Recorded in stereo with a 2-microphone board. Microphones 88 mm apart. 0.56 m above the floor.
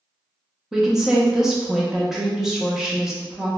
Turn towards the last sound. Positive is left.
turn(degrees=-5)  # may be behind; listen again after turning